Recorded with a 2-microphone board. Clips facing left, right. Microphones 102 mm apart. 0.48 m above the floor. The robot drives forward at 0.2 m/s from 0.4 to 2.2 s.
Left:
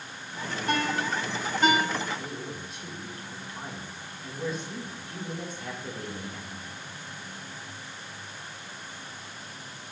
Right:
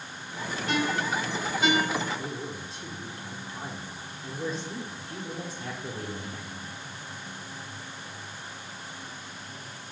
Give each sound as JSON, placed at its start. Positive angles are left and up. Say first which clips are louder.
{"t": 0.7, "sound": "a ringtone", "louder": "even", "side_deg": 50, "distance_m": 1.1}
{"t": 2.1, "sound": "a man speaking", "louder": "right 1 dB", "side_deg": -30, "distance_m": 0.8}